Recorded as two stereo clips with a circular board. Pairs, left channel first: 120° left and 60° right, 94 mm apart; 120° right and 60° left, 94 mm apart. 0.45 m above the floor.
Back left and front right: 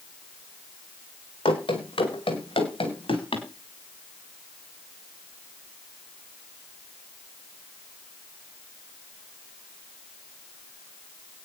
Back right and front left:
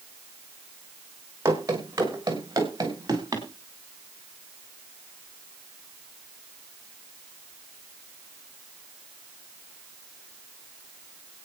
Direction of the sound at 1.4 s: 120° left.